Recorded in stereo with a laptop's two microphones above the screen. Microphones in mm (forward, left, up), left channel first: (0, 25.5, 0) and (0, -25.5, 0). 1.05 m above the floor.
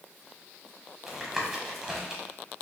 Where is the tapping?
5° right (ahead or behind), 1.4 m.